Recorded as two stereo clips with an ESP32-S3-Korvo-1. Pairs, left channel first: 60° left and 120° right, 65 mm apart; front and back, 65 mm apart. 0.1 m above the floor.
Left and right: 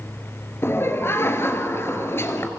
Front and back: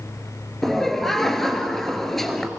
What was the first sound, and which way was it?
Laughter, 85° left.